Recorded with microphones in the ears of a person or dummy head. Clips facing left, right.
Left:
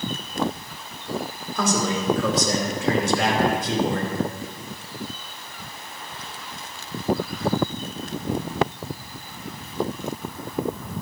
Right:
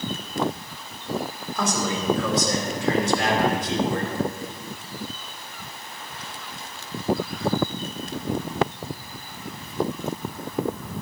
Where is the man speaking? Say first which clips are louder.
Left 2 dB; 85° left, 4.5 m; by 4.1 s 65° left (ahead or behind), 4 m.